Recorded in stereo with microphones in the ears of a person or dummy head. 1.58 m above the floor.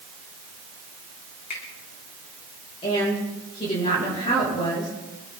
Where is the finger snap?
50° left (ahead or behind), 4 m.